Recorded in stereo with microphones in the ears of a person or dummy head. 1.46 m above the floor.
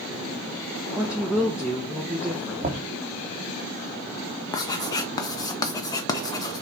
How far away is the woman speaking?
About 0.8 m.